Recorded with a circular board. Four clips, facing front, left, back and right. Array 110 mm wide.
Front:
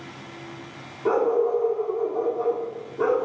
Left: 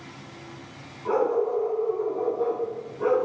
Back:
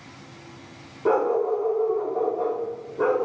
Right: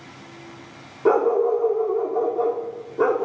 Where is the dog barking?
95° right, 2 m.